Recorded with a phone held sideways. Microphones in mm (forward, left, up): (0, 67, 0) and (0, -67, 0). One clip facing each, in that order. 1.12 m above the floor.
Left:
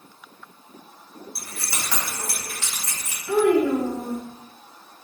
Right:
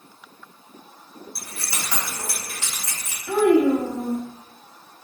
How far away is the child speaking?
About 1.0 m.